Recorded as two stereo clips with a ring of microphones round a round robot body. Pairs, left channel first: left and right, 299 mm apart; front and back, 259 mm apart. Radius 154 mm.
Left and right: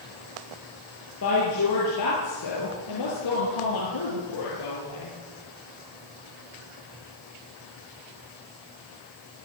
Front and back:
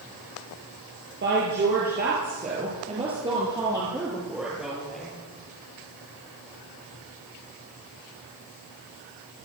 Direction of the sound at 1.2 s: 135° left.